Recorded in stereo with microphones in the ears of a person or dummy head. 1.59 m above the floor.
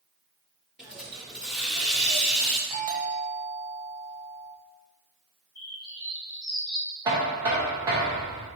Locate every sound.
0.8 s a hiss: 5° right (ahead or behind), 0.6 m
2.7 s a doorbell: 80° right, 1.2 m
5.5 s a bird: 25° left (ahead or behind), 1.7 m
7.0 s knocking: 15° right (ahead or behind), 0.8 m